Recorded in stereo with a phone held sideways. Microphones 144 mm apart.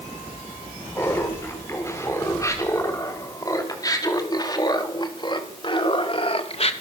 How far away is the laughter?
About 5.5 m.